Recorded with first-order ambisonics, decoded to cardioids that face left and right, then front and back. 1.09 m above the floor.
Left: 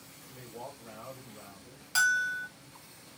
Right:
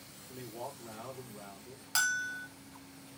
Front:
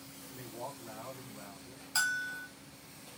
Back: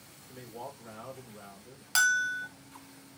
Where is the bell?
170° right, 0.8 m.